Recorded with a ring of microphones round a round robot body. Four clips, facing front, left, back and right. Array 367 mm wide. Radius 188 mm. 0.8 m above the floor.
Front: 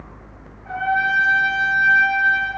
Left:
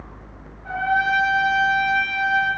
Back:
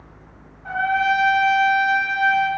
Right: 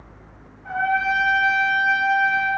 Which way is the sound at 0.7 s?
175° left.